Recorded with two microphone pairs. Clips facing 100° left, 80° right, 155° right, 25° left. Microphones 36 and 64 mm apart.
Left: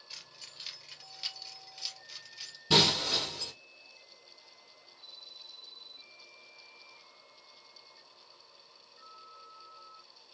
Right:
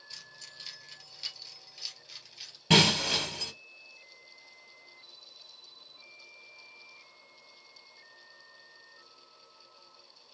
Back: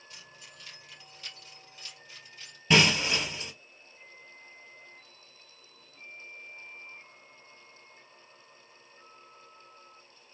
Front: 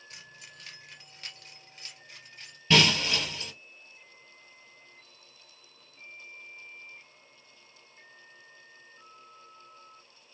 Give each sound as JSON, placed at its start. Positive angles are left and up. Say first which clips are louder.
{"t": 0.1, "sound": "keys jangling", "louder": "even, front 1 dB", "azimuth_deg": 30, "distance_m": 2.0}
{"t": 2.7, "sound": "breaking glass", "louder": "right 3 dB, even", "azimuth_deg": -85, "distance_m": 2.5}